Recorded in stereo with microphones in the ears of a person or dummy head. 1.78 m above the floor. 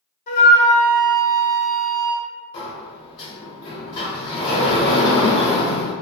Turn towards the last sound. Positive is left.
turn(degrees=30)  # may be behind; listen again after turning